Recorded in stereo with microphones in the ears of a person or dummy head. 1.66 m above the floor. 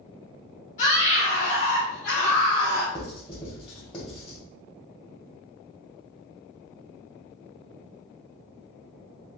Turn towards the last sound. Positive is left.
turn(degrees=25)  # may be behind; listen again after turning